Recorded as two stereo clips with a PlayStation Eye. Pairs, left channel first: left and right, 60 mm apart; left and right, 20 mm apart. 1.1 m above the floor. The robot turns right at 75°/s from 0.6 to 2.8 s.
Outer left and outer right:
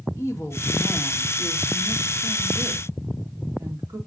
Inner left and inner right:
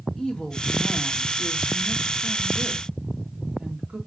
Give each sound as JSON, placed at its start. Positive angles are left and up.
{"t": 0.2, "sound": "a woman speaking", "azimuth_deg": 130, "distance_m": 1.6}